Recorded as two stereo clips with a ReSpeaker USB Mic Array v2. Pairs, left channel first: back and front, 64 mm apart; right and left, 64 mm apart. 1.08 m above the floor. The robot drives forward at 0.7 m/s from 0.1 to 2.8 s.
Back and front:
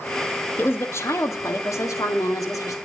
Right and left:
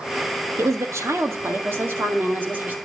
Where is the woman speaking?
130° left, 1.5 m; by 2.8 s 155° left, 2.5 m.